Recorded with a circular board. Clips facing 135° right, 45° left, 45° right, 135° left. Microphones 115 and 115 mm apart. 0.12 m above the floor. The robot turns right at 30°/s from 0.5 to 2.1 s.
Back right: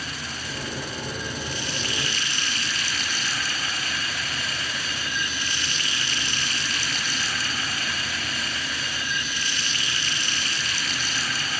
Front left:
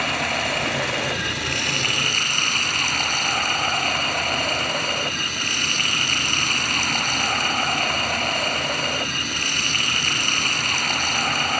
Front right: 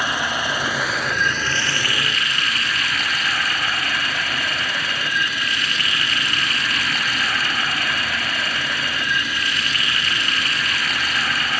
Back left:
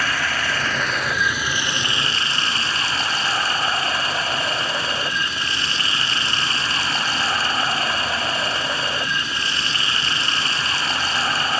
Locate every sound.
0.0 s running water: 30° left; by 11.6 s 75° left